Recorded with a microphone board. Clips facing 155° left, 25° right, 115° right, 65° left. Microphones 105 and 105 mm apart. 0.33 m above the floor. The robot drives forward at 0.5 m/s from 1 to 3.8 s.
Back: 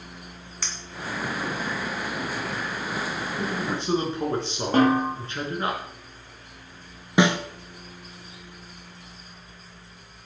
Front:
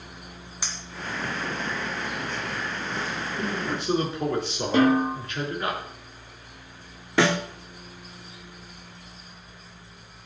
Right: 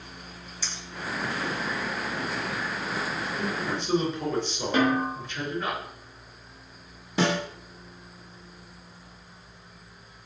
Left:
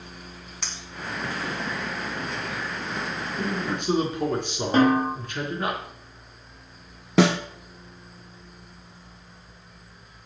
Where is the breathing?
I don't hear breathing.